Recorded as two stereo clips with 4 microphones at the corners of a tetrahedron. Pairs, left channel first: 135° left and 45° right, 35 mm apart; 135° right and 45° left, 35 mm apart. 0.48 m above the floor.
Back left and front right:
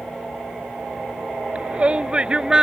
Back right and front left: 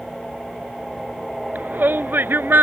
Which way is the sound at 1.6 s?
10° left.